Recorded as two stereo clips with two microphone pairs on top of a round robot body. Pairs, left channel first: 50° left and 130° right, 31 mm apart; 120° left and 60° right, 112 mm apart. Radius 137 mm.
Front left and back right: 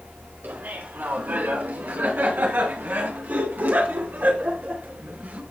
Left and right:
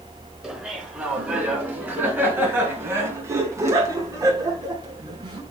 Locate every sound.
0.4 s laughter: 140° right, 5.5 m; by 5.4 s 105° right, 4.5 m